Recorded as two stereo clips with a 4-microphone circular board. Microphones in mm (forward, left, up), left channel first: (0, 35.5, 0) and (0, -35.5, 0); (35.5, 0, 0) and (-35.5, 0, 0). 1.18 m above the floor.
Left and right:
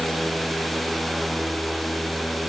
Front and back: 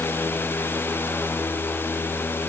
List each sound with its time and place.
Only background noise.